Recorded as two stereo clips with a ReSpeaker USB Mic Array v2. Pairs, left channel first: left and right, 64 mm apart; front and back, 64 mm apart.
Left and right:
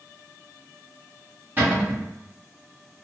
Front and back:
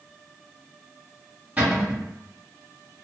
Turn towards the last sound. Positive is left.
turn(degrees=-135)